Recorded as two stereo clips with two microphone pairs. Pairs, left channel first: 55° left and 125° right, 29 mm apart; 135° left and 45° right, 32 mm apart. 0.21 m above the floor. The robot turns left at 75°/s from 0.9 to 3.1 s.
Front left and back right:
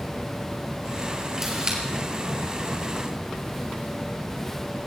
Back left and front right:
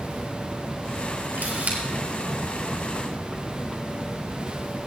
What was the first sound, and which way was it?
A camera shutter, 45° right.